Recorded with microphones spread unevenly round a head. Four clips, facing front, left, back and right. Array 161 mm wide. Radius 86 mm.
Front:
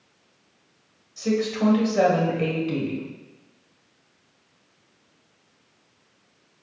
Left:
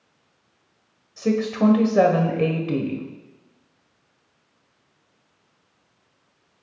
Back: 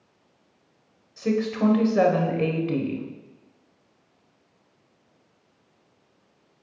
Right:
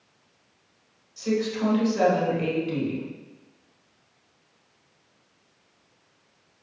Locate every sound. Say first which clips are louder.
1.2 s a woman speaking: left 4 dB, even; 90° left, 1.4 m